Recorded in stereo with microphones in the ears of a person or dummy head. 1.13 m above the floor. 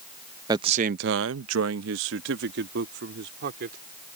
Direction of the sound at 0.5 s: 25° right (ahead or behind).